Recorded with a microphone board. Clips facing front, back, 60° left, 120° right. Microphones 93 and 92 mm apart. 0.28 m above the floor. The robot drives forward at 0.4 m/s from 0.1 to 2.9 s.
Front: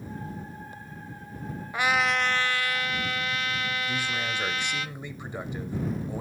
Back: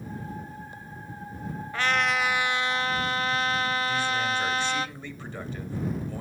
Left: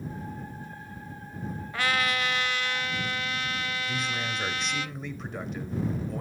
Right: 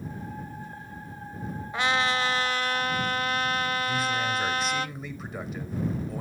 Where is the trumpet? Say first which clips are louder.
Front 1 dB, right 3 dB; 65° right, 0.5 m; by 4.9 s 140° right, 0.6 m.